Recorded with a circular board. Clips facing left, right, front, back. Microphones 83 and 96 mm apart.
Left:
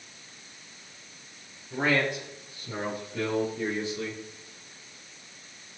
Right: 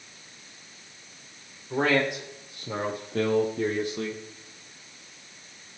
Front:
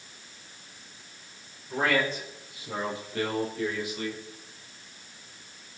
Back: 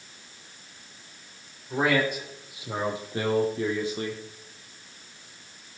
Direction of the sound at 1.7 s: 105° right.